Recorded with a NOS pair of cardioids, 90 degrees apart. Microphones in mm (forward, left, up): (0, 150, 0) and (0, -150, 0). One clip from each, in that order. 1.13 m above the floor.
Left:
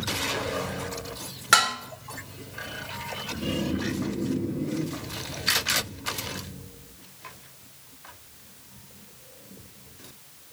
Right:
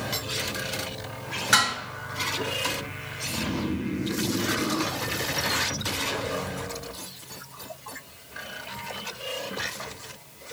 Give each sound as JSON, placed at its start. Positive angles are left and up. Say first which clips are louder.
{"t": 1.5, "sound": "dishes clattering", "louder": "left 1 dB", "azimuth_deg": 35, "distance_m": 3.0}
{"t": 3.3, "sound": "snoring", "louder": "right 1 dB", "azimuth_deg": 25, "distance_m": 3.5}